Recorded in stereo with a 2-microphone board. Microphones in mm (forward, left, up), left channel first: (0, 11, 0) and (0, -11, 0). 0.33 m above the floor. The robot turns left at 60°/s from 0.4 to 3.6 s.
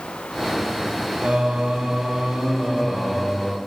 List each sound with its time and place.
1.2 s singing: 70° right, 1.4 m; by 3.6 s 150° left, 1.4 m